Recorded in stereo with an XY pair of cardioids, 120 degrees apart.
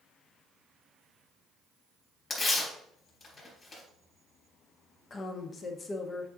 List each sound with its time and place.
2.3 s tearing paper: 40° left, 3.5 m
5.1 s a woman speaking: 35° left, 1.2 m